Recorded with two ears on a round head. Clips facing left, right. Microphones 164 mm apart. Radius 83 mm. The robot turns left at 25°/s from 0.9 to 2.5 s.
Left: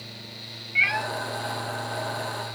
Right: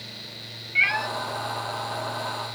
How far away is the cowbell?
No cowbell in this recording.